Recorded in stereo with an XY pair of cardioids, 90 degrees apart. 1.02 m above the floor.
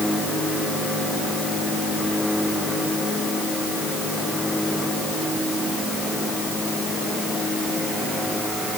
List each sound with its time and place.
Only background noise.